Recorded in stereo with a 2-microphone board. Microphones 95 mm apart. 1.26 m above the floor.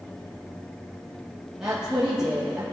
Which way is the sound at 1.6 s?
10° right (ahead or behind).